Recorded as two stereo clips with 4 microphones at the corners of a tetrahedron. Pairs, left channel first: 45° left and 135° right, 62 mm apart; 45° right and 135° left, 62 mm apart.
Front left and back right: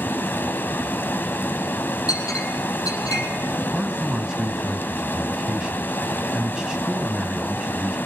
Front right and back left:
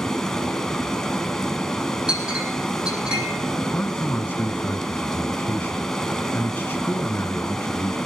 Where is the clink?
60° left, 4.5 m.